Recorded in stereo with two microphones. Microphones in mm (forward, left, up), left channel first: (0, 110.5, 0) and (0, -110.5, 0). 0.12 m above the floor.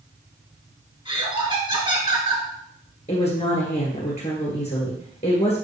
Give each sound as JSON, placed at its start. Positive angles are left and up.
{"t": 1.1, "sound": "laughter", "side_deg": -25, "distance_m": 1.3}
{"t": 3.1, "sound": "a woman speaking", "side_deg": 30, "distance_m": 1.9}